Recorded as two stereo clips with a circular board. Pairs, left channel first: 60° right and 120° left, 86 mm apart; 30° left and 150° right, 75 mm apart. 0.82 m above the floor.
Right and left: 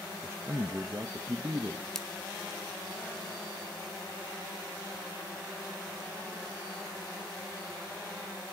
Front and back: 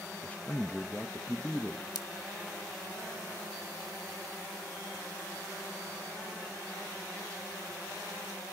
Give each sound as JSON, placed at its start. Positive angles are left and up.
{"t": 0.2, "sound": "a man speaking", "azimuth_deg": 85, "distance_m": 0.8}
{"t": 1.9, "sound": "scissors", "azimuth_deg": 25, "distance_m": 1.1}